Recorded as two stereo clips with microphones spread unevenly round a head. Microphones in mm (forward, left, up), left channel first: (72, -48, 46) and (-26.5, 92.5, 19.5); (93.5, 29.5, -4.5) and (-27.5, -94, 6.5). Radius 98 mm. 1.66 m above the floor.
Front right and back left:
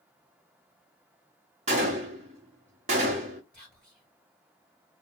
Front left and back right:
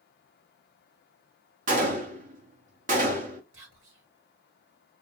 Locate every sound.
1.7 s a gunshot: 175° right, 0.8 m
3.5 s whispering: 140° right, 2.0 m